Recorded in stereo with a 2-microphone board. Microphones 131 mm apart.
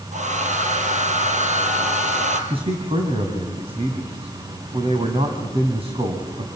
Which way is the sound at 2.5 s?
45° right (ahead or behind).